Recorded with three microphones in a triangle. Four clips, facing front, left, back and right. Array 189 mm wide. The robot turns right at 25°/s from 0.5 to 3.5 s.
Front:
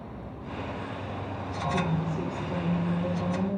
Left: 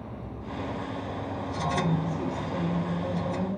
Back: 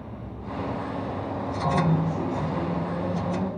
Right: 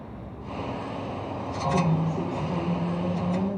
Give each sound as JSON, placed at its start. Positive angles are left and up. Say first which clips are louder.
{"t": 1.7, "sound": "a woman speaking", "louder": "right 4 dB, back 5 dB", "azimuth_deg": -140, "distance_m": 5.0}